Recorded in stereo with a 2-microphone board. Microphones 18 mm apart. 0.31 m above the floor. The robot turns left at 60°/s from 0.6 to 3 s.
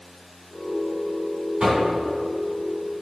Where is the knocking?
50° right (ahead or behind), 2.5 m; by 1.9 s 60° right (ahead or behind), 2.5 m.